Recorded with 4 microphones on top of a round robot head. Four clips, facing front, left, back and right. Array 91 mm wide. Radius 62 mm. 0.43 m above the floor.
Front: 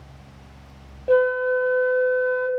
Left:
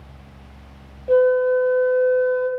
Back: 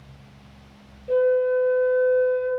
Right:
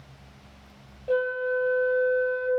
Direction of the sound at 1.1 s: 15° left.